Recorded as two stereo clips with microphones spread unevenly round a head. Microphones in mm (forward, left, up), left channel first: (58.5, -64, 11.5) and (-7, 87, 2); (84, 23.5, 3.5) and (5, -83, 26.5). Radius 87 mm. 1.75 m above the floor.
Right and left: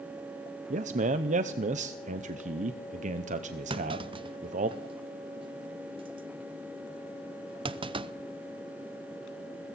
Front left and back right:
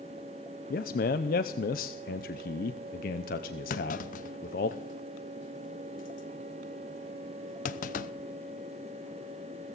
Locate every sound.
0.7 s a man speaking: 75° left, 0.7 m
3.7 s a clunk: 60° left, 0.7 m